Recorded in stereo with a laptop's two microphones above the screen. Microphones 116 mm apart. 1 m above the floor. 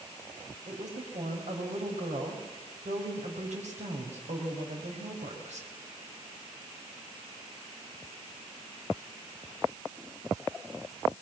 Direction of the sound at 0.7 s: 90° right.